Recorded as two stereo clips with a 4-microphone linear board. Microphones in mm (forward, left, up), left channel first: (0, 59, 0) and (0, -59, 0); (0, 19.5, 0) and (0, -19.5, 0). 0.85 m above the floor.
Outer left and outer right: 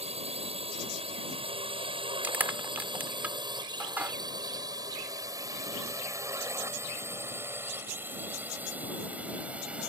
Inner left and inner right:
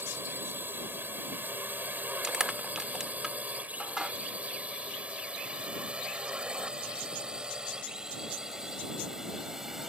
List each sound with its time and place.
0.0 s a drone: 60° right (ahead or behind); by 9.9 s 10° right (ahead or behind)
2.2 s crushing: 15° right (ahead or behind)